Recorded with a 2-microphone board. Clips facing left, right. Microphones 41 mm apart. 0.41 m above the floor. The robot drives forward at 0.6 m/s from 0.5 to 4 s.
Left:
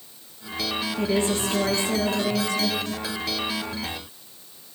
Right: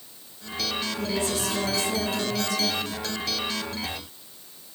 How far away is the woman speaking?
About 7.5 m.